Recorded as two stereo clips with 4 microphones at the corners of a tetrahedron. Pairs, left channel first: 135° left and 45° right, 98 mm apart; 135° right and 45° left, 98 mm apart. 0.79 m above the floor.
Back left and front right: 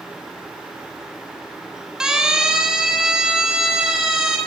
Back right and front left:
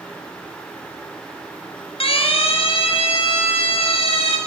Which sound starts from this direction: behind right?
A siren, at 2.0 s.